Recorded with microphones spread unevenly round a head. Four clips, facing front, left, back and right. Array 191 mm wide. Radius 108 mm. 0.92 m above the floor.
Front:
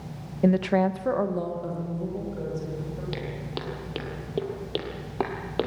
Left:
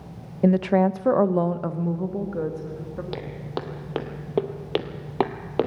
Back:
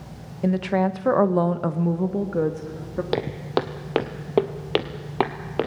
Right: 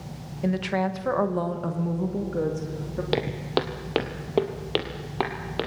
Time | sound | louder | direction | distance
0.4 | a woman speaking | left 7 dB, even | 65° left | 1.0 m
3.1 | footsteps | right 10 dB, back 10 dB | 150° right | 1.4 m